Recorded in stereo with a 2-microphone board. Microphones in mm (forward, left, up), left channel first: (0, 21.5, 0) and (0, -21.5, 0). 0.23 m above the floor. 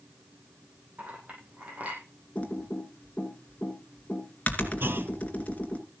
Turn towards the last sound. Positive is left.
turn(degrees=-60)  # may be behind; listen again after turning